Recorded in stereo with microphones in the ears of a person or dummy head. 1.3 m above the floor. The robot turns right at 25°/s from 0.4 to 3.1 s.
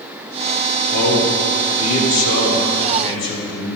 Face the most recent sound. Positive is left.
turn(degrees=115)